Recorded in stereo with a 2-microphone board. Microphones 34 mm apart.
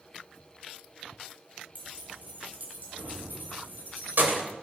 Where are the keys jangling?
50° right (ahead or behind), 4 m; by 4.4 s 70° right (ahead or behind), 2.5 m.